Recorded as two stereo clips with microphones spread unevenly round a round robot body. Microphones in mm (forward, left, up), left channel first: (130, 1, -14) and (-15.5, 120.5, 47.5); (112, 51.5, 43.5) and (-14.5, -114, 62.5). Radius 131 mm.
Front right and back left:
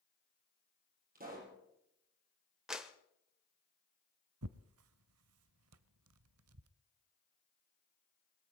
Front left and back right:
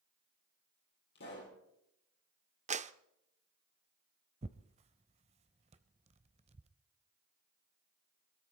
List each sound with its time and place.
1.1 s a pop: 100° left, 6 m
2.7 s a clap: 100° right, 0.7 m
4.4 s tearing paper: 170° left, 0.5 m